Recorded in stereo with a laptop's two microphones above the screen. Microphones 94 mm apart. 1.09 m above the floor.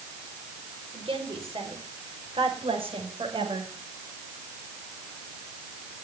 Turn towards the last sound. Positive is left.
turn(degrees=-70)  # may be behind; listen again after turning